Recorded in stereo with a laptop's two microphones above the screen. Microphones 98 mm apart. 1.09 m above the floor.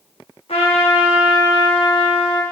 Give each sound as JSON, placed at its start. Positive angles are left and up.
{"t": 0.5, "sound": "a trumpet", "side_deg": 80, "distance_m": 1.4}